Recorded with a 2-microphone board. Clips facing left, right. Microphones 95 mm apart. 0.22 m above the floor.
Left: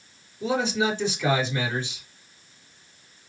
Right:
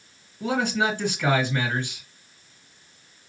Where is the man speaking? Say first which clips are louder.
Even; 60° right (ahead or behind), 2.5 m.